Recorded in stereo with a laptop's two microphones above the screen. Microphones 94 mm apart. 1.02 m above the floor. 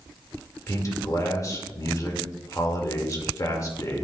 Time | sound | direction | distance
0.7 | a man speaking | 35° left (ahead or behind) | 1.8 m